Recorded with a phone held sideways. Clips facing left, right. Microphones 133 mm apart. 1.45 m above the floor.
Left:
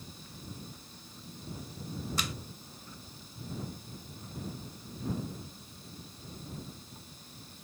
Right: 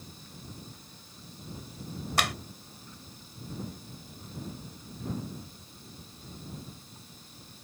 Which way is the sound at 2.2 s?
75° right (ahead or behind).